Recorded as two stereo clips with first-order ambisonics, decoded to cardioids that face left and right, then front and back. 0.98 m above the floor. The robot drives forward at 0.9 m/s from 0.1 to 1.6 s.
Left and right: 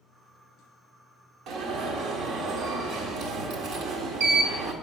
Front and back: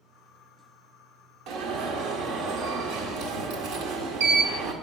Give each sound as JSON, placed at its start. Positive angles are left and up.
{"t": 1.5, "sound": "an alarm", "azimuth_deg": -140, "distance_m": 1.6}